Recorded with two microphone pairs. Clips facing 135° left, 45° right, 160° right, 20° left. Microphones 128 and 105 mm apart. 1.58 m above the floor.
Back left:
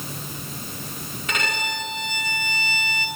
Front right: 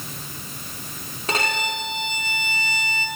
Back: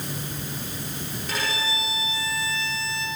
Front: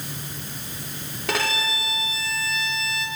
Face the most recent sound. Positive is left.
turn(degrees=10)